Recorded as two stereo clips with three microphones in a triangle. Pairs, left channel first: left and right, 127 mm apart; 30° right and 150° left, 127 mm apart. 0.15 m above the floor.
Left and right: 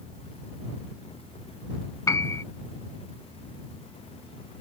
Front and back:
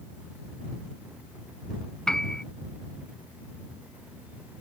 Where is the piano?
50° left.